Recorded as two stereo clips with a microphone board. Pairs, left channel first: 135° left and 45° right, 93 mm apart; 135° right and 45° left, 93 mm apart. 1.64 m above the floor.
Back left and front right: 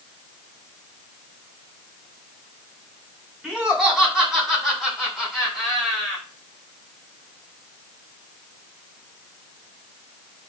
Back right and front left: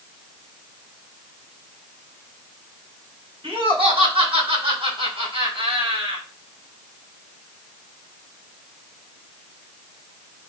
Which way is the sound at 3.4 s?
40° left.